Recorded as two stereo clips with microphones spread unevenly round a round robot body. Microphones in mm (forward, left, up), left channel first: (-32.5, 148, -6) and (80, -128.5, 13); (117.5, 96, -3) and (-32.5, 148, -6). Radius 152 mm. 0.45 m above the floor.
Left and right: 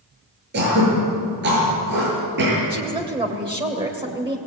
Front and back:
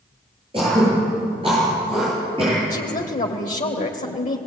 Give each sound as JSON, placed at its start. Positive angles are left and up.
{"t": 0.5, "sound": "throat clearing", "azimuth_deg": -125, "distance_m": 9.0}
{"t": 2.7, "sound": "a woman speaking", "azimuth_deg": 5, "distance_m": 2.0}